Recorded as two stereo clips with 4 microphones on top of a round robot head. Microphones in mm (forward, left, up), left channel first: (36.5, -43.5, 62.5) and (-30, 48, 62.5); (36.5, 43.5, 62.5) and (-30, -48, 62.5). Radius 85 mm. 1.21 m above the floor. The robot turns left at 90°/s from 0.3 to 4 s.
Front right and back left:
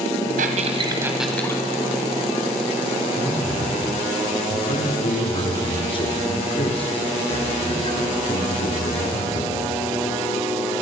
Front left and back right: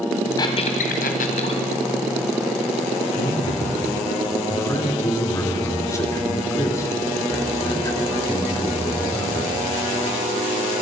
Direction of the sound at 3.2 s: 65° left.